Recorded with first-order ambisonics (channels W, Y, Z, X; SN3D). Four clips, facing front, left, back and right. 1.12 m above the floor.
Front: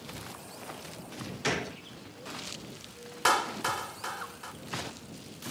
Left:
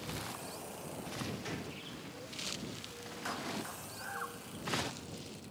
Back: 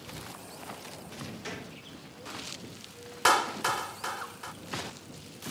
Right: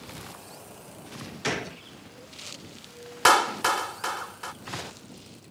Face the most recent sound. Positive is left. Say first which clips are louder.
# right 21 dB, back 2 dB
turn(degrees=-95)